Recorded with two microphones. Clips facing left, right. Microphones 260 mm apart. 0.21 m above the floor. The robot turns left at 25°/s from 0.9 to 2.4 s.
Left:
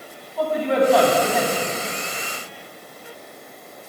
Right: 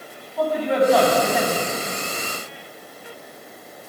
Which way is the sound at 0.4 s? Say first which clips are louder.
Even; centre (ahead or behind).